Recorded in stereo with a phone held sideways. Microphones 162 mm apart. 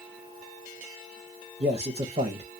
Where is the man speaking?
40° right (ahead or behind), 0.7 m.